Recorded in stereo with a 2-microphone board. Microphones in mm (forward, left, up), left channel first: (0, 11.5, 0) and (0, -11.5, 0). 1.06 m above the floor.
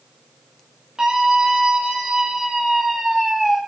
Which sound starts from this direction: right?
A scream, at 1.0 s.